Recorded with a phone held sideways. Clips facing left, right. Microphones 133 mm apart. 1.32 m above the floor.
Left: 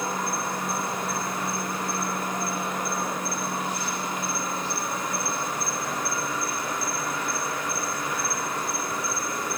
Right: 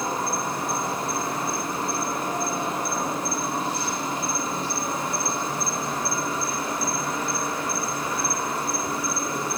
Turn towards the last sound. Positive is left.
turn(degrees=-30)  # may be behind; listen again after turning